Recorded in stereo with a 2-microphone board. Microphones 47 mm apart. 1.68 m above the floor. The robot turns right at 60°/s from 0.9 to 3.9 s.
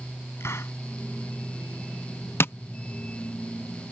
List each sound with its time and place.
0.4 s a hiss: 70° left (ahead or behind)
2.4 s tapping: 55° left (ahead or behind); by 2.5 s 60° left (ahead or behind)